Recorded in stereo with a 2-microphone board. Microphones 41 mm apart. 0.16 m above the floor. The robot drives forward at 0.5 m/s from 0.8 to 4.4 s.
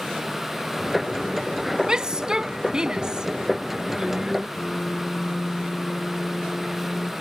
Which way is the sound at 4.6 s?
30° left (ahead or behind).